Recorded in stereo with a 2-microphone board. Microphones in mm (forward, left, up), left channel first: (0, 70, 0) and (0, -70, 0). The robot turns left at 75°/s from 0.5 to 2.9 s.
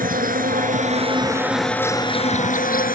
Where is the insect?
95° right; by 2.9 s 85° left.